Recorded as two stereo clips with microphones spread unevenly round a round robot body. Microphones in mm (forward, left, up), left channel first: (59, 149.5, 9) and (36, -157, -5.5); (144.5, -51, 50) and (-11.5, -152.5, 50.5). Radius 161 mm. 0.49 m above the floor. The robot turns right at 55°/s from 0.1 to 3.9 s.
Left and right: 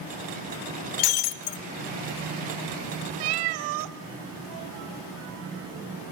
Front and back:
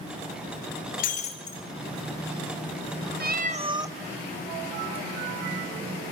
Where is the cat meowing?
110° right, 1.1 m; by 4.0 s 70° right, 1.1 m.